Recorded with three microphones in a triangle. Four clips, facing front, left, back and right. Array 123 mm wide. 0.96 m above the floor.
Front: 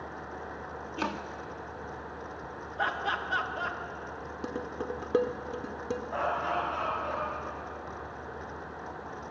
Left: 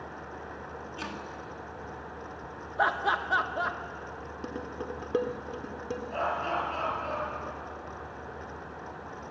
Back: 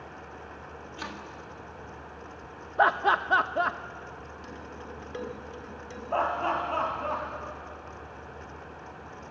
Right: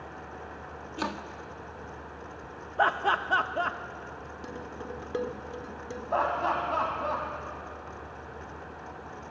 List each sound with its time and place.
1.0 s chopping: 40° right, 1.4 m
2.8 s laughter: 165° right, 1.0 m
4.4 s dishes clattering: 20° left, 1.6 m
6.1 s laughter: 130° right, 6.5 m